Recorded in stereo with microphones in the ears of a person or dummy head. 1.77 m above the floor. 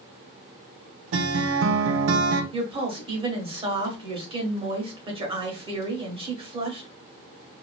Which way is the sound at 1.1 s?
80° right.